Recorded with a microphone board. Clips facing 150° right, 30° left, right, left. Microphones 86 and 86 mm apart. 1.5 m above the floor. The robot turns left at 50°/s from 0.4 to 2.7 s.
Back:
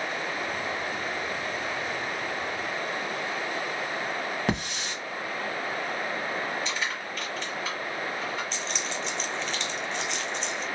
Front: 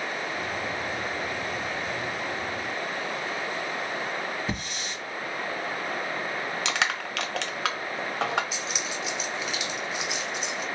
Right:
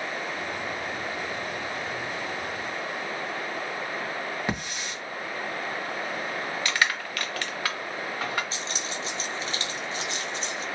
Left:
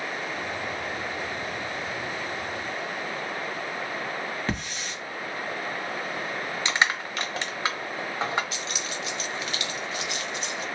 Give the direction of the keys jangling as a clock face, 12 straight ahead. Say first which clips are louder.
Even, even; 2 o'clock.